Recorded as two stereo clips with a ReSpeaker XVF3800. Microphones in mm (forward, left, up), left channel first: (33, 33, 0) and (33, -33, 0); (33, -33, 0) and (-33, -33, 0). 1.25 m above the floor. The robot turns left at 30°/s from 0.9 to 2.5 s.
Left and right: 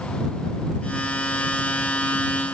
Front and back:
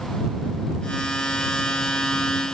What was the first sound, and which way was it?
Only background noise.